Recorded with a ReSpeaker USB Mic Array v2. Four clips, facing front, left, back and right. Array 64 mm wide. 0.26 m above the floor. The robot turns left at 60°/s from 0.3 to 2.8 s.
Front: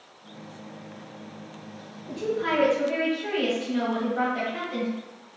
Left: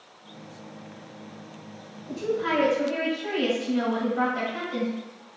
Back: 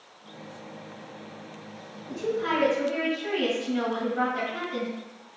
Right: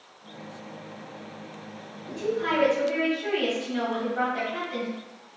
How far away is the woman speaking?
About 1.1 m.